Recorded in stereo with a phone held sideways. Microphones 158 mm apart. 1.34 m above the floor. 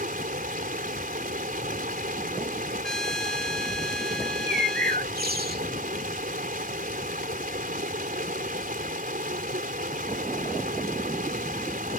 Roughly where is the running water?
Right.